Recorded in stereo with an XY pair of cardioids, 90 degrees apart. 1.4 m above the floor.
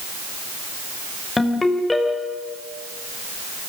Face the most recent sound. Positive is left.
turn(degrees=25)